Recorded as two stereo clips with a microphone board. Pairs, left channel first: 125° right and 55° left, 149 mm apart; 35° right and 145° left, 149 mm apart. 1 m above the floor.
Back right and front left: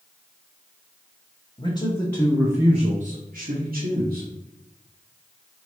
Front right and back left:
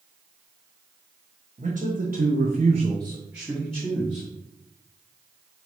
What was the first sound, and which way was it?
A man speaking, straight behind.